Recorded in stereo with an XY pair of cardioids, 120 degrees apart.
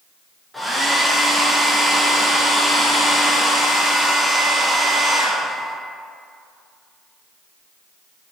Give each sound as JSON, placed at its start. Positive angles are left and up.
{"t": 0.5, "sound": "a hair dryer", "azimuth_deg": 5, "distance_m": 0.6}